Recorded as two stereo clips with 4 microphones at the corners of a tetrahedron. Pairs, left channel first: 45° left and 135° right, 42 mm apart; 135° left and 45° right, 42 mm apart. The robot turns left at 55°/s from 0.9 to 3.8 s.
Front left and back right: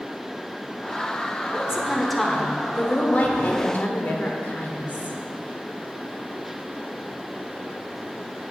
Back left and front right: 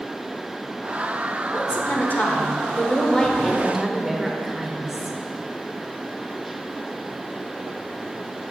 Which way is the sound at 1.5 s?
165° left.